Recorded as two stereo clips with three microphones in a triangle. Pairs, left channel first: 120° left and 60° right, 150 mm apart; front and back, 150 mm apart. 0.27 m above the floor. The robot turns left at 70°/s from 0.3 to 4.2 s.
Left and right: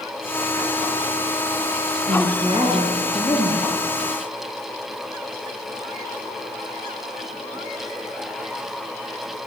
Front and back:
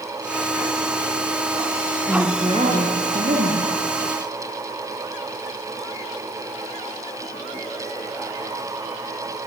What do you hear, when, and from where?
2.1 s a woman speaking: 90° right, 5 m; by 3.7 s 155° left, 5 m